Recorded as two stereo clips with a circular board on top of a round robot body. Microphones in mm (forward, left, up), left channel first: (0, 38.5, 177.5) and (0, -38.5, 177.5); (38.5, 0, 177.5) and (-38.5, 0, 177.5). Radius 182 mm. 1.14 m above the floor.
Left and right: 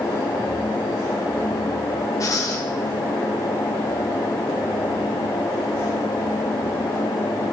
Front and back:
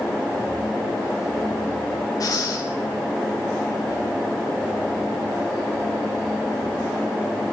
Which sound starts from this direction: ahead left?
Breathing, at 2.2 s.